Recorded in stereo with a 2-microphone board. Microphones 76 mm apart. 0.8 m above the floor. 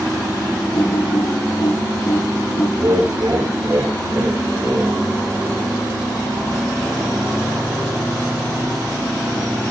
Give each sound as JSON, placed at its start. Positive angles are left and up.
{"t": 0.7, "sound": "typing on a keyboard", "side_deg": 80, "distance_m": 9.0}
{"t": 2.8, "sound": "laughter", "side_deg": -50, "distance_m": 2.5}